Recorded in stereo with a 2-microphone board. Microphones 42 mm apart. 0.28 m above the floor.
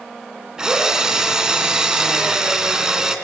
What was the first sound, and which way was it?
A drill, 20° right (ahead or behind).